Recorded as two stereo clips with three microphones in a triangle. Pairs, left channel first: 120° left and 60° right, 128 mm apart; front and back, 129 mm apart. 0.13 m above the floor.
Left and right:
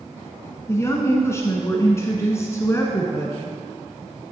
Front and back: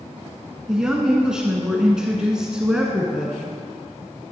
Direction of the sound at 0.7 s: 105° left.